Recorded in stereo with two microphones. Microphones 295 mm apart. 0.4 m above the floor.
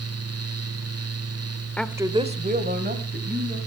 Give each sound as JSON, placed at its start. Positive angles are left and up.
{"t": 1.8, "sound": "a woman speaking", "side_deg": 5, "distance_m": 0.8}